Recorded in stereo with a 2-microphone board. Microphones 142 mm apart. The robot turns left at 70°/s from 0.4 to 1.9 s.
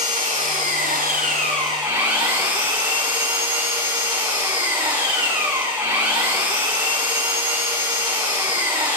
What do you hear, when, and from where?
0.0 s an engine running: 55° right, 6.5 m; by 9.0 s 160° right, 6.5 m